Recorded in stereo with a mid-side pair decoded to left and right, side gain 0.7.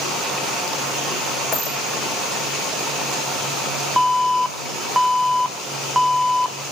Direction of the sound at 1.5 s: Straight ahead.